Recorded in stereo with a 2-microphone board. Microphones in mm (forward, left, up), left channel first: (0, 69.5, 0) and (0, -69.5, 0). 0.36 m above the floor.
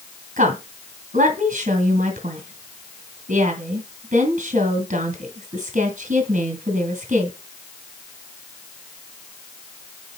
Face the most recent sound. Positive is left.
turn(degrees=-70)  # may be behind; listen again after turning